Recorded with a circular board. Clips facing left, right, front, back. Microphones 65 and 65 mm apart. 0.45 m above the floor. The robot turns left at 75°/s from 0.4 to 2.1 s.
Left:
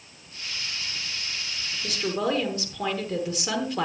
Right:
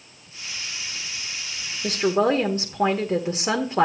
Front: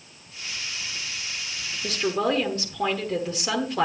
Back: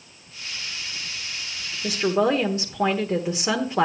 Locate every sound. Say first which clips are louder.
1.8 s a woman speaking: right 7 dB, back 4 dB; 105° right, 1.1 m; by 3.9 s 125° right, 1.1 m